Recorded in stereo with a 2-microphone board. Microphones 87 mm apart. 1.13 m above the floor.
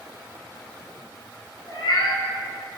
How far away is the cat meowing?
About 1.5 m.